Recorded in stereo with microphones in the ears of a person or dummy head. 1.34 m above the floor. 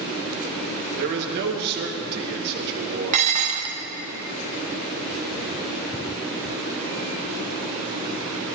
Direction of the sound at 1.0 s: 60° right (ahead or behind).